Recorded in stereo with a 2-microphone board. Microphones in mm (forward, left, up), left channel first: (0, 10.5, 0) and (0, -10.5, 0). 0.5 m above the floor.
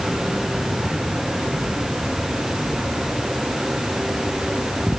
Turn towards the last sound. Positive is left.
No sound to turn to.